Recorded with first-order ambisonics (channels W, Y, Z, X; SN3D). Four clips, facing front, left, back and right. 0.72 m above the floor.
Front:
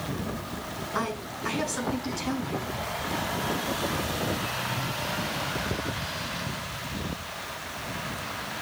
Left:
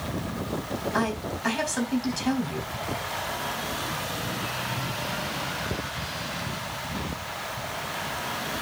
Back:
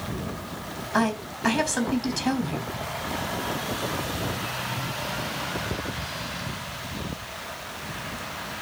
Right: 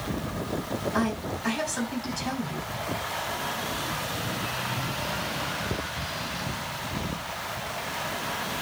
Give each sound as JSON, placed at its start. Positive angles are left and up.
{"t": 0.9, "sound": "a woman speaking", "azimuth_deg": 165, "distance_m": 4.0}